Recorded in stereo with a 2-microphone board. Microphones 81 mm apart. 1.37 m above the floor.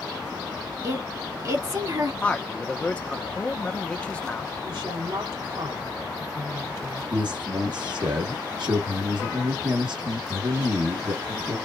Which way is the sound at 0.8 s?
45° right (ahead or behind).